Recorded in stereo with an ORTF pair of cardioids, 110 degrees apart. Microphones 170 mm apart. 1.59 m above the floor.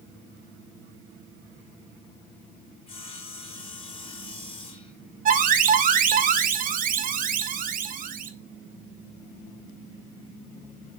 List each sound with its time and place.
2.9 s sawing: 35° left, 3 m
5.2 s an alarm: 55° right, 1.4 m